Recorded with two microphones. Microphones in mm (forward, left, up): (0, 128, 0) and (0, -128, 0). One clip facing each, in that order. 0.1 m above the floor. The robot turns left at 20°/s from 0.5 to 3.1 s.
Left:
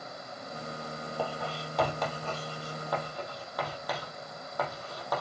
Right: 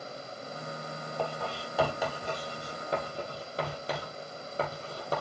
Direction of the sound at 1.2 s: 5° left (ahead or behind).